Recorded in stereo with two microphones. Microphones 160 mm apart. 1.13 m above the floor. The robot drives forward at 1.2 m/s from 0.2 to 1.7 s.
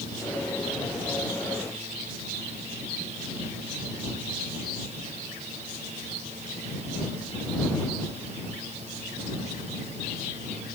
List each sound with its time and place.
Only background noise.